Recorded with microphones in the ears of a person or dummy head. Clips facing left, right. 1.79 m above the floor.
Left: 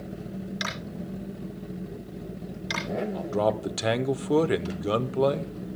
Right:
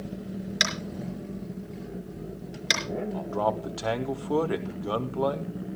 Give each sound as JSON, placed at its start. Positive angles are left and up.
{"t": 0.6, "sound": "tapping", "side_deg": -75, "distance_m": 4.5}
{"t": 3.1, "sound": "a man speaking", "side_deg": 30, "distance_m": 0.8}